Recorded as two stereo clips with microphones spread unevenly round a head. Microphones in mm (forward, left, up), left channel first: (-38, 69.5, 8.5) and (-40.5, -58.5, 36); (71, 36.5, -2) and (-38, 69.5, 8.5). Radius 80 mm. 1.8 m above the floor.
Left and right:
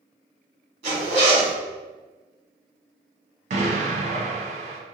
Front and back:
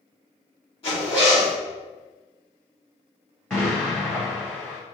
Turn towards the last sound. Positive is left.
turn(degrees=-105)